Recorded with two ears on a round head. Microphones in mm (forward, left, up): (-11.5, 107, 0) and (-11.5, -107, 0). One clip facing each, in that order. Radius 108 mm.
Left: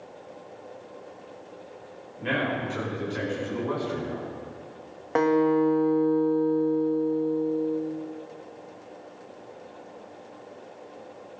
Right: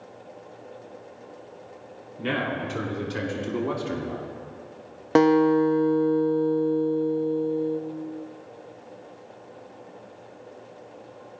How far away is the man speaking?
About 3.5 m.